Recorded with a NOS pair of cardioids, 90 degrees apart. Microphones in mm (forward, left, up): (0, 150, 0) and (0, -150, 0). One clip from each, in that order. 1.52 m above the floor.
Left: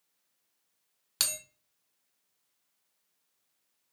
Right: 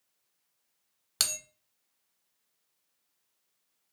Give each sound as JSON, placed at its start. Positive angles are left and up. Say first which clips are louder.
{"t": 1.2, "sound": "a bell", "louder": "right 1 dB", "azimuth_deg": -10, "distance_m": 0.7}